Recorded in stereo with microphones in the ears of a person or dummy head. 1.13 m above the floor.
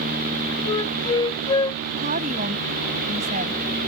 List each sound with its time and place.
0.7 s a flute: 25° left (ahead or behind)
2.0 s a woman speaking: 40° right (ahead or behind)